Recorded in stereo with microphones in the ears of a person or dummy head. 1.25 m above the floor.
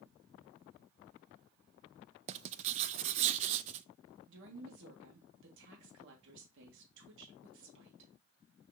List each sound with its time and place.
2.3 s writing: 35° right (ahead or behind), 0.5 m
4.3 s a woman speaking: 70° right (ahead or behind), 2 m